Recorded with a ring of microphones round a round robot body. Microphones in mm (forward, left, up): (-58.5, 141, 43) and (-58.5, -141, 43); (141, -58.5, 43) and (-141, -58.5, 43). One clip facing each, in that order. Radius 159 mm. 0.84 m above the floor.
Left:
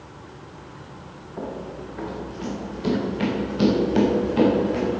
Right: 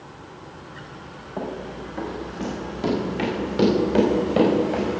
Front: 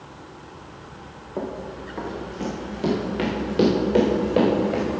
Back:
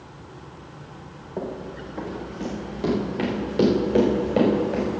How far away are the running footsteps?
About 4 m.